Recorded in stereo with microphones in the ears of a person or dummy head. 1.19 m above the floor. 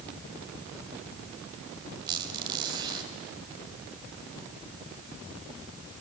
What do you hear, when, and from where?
2.1 s a squeak: 25° right (ahead or behind), 3 m